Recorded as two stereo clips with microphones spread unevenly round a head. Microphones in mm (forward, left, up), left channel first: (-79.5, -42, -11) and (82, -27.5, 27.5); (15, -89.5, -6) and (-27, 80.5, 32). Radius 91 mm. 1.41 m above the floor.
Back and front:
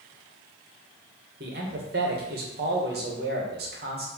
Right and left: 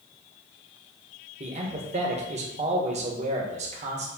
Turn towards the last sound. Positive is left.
turn(degrees=45)